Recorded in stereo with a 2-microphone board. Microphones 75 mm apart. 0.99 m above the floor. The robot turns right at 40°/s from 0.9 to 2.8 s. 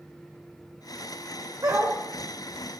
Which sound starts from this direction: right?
A dog barking, at 1.6 s.